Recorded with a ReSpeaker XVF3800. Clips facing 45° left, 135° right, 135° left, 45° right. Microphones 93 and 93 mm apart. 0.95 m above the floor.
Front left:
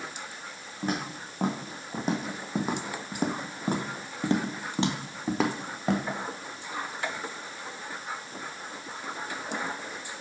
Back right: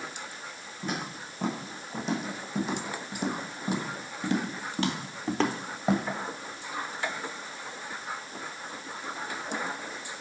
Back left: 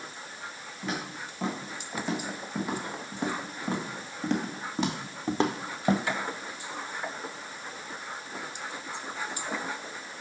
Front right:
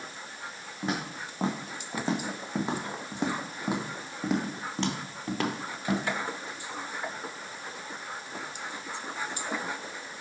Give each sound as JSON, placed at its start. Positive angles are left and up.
{"t": 0.8, "sound": "footsteps", "azimuth_deg": 10, "distance_m": 3.0}